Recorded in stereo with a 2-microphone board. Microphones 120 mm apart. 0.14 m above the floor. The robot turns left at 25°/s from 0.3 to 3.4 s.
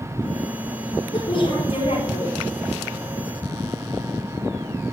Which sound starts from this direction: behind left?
A woman speaking, at 1.1 s.